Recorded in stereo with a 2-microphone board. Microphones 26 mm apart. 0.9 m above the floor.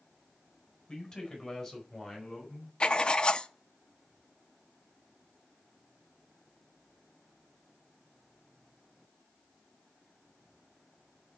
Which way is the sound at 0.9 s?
30° left (ahead or behind).